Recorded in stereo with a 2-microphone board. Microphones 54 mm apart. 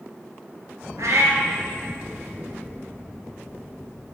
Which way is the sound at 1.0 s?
85° right.